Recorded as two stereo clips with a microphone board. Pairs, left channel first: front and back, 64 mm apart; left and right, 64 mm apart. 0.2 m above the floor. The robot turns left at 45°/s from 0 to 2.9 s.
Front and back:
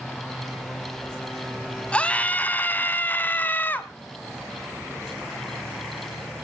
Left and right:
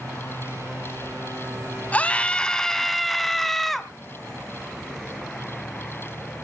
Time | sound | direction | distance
1.9 | a scream | 55° left | 1.0 m